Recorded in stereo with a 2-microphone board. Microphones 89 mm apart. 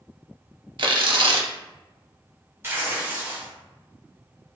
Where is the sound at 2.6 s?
25° right (ahead or behind), 1.2 m.